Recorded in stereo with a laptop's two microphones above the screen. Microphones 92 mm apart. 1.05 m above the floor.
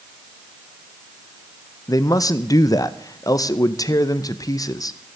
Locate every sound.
1.9 s a man speaking: 40° left (ahead or behind), 0.7 m